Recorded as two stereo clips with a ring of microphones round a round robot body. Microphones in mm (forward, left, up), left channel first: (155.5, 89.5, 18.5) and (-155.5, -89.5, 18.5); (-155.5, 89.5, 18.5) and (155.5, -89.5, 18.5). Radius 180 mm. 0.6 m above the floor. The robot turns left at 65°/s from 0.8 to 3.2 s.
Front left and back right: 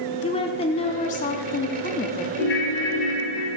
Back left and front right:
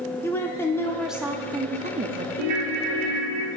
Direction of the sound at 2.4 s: 20° right.